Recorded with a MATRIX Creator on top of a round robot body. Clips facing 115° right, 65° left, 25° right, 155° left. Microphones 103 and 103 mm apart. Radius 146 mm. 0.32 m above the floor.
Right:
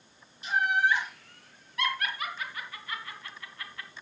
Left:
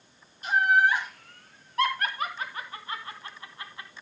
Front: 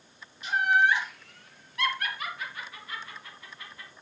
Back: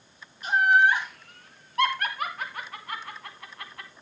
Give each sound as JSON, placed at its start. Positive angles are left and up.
{"t": 0.4, "sound": "laughter", "azimuth_deg": 115, "distance_m": 5.0}